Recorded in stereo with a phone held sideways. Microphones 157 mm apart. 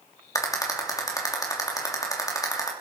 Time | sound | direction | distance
0.3 | a rattle | 20° left (ahead or behind) | 2.5 m